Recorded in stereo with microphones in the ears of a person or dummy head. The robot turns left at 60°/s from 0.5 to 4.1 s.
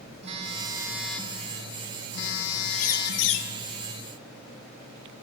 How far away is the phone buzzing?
About 2 m.